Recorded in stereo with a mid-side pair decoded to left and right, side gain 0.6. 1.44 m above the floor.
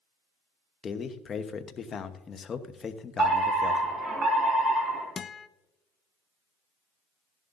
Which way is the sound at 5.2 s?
30° left.